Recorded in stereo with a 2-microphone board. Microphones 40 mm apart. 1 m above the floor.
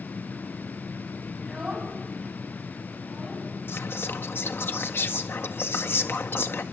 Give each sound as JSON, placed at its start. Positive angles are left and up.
{"t": 1.4, "sound": "a child speaking", "side_deg": -10, "distance_m": 5.5}
{"t": 3.7, "sound": "whispering", "side_deg": 70, "distance_m": 1.6}